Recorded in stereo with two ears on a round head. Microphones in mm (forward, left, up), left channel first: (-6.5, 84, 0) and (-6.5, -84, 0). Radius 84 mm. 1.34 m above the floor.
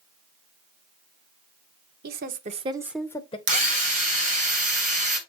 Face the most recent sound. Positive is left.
turn(degrees=-40)  # may be behind; listen again after turning